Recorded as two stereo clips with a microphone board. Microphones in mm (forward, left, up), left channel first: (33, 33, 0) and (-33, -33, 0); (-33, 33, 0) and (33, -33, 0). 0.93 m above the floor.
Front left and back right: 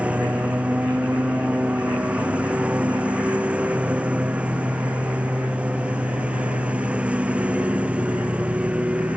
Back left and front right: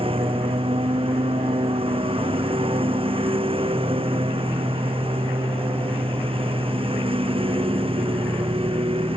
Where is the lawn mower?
60° right.